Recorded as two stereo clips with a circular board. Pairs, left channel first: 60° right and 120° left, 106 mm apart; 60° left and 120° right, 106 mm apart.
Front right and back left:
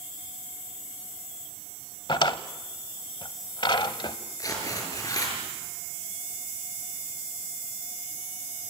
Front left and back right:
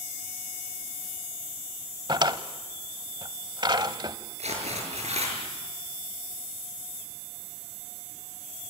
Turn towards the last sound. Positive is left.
turn(degrees=-115)